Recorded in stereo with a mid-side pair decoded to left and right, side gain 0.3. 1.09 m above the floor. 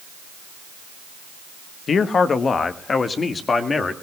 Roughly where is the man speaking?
Left.